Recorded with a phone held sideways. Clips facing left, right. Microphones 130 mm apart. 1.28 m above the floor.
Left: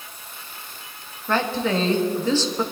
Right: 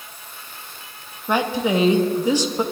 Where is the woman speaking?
15° right (ahead or behind), 1.2 m.